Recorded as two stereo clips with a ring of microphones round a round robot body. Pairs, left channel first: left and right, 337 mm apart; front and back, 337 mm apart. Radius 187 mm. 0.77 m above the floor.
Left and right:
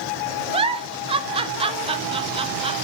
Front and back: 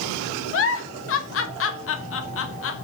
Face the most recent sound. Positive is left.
turn(degrees=-25)